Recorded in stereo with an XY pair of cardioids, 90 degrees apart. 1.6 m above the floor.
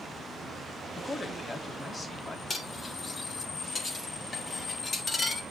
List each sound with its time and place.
1.0 s a man speaking: 35° left, 3 m
2.5 s cutlery clinking: 45° left, 3 m